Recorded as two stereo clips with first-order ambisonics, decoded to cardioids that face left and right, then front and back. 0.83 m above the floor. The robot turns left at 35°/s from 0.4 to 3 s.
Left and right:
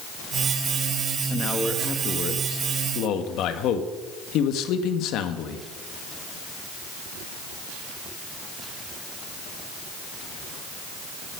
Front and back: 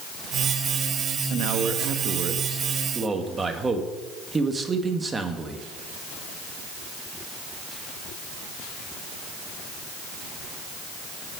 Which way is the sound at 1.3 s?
165° left.